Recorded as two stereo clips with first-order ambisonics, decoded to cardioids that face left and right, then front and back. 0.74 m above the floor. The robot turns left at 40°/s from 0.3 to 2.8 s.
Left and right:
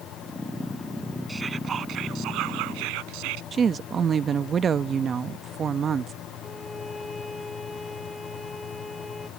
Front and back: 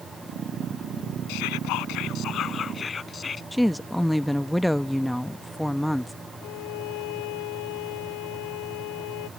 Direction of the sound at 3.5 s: 90° right.